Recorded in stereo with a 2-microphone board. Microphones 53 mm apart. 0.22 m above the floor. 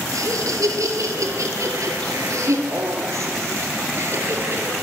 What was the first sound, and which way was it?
Laughter, 75° right (ahead or behind).